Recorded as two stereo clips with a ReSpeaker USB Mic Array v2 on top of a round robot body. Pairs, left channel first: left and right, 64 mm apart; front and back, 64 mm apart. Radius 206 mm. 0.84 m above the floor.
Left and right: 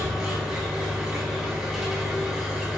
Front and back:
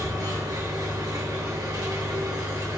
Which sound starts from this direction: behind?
An engine running, at 0.0 s.